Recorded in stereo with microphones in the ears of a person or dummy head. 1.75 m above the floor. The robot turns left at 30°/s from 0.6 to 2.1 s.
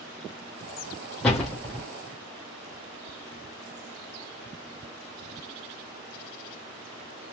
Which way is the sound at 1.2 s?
5° left (ahead or behind).